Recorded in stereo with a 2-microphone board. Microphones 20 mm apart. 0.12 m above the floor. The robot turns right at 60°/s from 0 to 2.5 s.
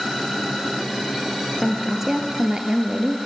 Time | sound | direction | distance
1.6 | a woman speaking | straight behind | 2 m